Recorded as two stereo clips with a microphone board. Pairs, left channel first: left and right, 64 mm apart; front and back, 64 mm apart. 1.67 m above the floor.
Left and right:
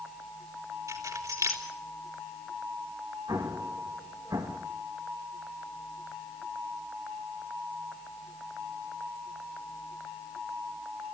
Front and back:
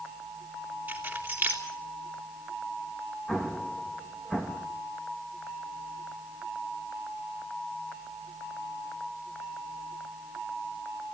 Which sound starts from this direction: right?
An explosion, at 3.3 s.